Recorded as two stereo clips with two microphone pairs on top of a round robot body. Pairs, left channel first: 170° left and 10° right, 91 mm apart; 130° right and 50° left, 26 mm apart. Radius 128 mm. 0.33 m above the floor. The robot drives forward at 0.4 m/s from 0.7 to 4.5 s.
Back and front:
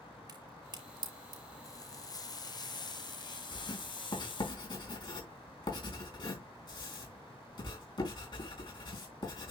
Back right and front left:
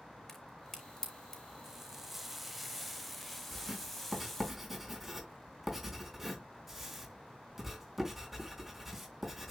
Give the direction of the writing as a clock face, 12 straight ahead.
8 o'clock.